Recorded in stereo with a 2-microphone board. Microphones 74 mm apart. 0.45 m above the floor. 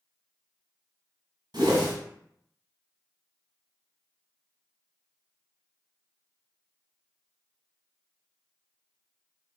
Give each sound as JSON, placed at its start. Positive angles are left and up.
{"t": 1.5, "sound": "a whoosh", "side_deg": -70, "distance_m": 1.3}